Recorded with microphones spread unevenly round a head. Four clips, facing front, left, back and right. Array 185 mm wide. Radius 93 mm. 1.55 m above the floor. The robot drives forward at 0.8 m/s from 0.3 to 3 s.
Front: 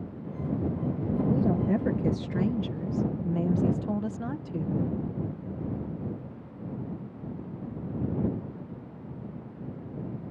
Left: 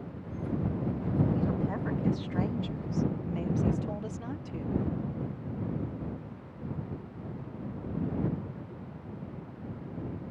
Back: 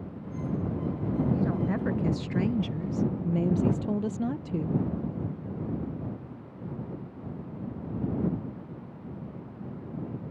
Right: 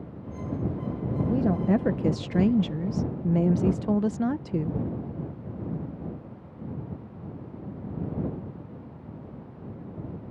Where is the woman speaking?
55° right; by 4.8 s 130° right.